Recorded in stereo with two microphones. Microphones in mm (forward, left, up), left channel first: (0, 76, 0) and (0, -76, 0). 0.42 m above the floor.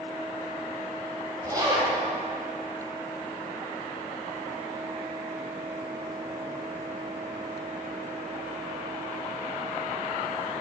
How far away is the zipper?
About 3.5 m.